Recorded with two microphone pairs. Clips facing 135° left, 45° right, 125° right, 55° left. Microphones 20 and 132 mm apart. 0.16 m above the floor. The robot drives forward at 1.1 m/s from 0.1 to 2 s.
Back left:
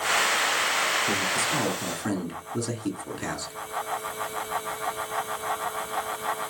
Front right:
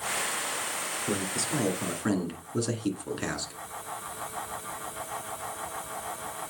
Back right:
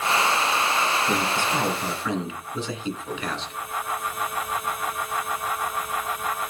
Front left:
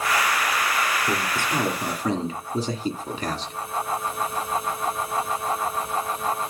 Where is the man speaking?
15° left, 3 m; by 3.5 s 30° left, 2 m.